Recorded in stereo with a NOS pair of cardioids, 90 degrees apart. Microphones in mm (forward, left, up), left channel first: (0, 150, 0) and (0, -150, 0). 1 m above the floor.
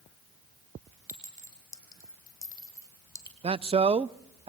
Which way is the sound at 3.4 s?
20° right.